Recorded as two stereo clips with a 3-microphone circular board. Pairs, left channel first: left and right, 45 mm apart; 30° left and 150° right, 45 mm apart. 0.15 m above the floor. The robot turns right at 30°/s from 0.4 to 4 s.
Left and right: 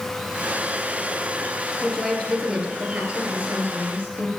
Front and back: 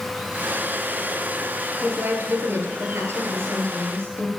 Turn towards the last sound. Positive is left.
turn(degrees=-125)